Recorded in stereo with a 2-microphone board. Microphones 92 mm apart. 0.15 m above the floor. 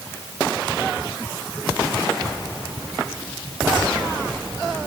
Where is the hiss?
I don't hear a hiss.